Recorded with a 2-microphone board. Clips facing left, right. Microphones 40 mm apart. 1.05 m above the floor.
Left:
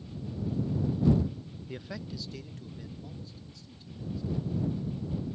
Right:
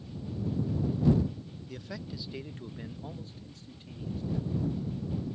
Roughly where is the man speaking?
Left.